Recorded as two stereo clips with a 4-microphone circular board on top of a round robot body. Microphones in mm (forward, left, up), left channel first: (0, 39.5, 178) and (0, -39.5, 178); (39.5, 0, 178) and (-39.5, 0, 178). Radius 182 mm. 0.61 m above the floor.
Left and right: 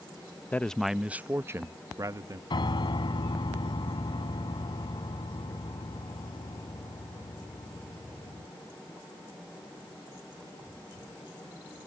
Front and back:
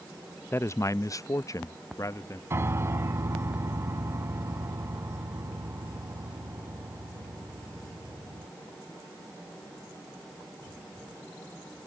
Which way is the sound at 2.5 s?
120° left.